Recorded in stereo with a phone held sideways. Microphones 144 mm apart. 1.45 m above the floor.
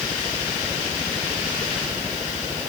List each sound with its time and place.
Only background noise.